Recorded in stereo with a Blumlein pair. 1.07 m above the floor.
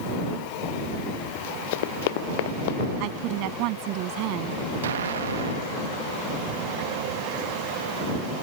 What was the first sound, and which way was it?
Running footsteps, 50° left.